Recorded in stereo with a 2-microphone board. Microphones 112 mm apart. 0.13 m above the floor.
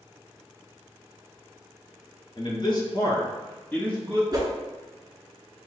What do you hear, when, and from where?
2.4 s a man speaking: 45° left (ahead or behind), 1.6 m; by 4.2 s centre (ahead or behind), 1.5 m
4.3 s a whoosh: 35° right (ahead or behind), 1.2 m